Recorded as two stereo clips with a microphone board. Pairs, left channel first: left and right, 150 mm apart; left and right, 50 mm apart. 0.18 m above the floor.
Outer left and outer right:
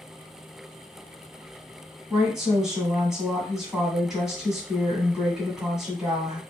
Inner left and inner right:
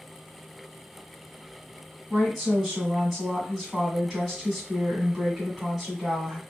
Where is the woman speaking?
Centre (ahead or behind), 1.6 m.